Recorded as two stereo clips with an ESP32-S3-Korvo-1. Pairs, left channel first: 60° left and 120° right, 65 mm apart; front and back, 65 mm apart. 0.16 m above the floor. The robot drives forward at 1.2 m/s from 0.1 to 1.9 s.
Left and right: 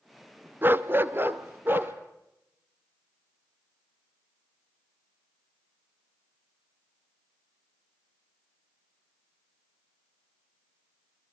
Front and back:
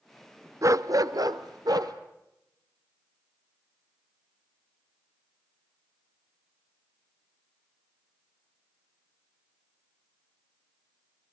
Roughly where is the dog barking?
Behind.